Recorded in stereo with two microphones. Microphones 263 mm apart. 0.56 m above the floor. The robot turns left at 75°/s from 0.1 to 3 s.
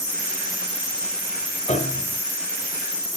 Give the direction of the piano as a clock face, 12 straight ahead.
7 o'clock.